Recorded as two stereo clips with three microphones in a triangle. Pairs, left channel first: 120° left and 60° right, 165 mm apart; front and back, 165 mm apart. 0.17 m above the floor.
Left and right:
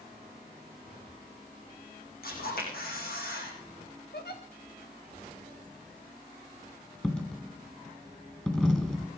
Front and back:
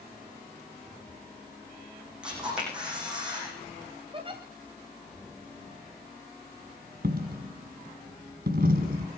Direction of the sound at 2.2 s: 95° left.